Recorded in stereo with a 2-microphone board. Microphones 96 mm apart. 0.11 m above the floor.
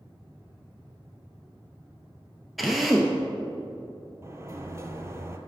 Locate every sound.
2.6 s a drill: centre (ahead or behind), 0.7 m
4.2 s a sliding door: 30° right (ahead or behind), 0.5 m